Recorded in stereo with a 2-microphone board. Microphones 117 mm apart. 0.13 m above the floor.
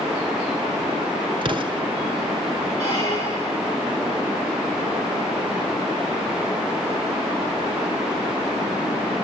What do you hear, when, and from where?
1.4 s an explosion: 45° right (ahead or behind), 1.3 m
2.8 s a squeak: 25° left (ahead or behind), 7 m